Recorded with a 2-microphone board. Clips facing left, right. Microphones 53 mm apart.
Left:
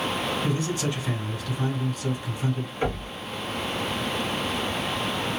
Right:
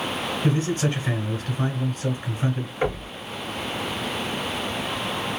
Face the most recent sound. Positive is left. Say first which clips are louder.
# right 3 dB
turn(degrees=-20)  # may be behind; listen again after turning